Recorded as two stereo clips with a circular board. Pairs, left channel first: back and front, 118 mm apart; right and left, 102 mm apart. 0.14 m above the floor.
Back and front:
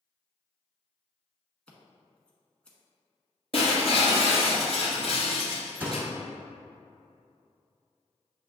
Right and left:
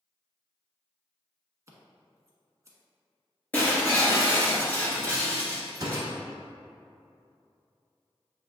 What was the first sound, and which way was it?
Scissors, 105° left.